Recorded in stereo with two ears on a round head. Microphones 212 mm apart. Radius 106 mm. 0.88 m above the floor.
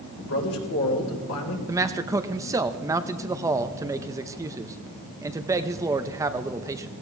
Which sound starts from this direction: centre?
A man speaking, at 1.7 s.